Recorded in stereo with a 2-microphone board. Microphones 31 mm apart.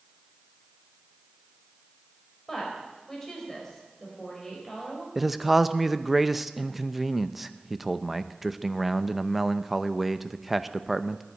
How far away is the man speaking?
About 0.6 m.